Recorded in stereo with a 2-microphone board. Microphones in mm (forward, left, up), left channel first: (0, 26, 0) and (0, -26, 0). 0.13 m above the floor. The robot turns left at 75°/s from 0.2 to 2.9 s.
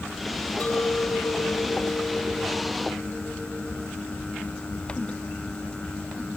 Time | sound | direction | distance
0.6 | a clink | 150° left | ?